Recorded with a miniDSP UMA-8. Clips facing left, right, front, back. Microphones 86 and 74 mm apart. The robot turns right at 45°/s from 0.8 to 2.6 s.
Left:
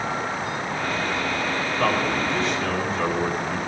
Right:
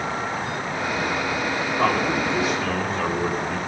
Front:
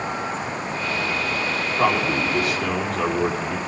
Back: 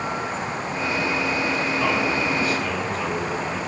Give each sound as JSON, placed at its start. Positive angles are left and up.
{"t": 1.8, "sound": "a man speaking", "azimuth_deg": -35, "distance_m": 5.0}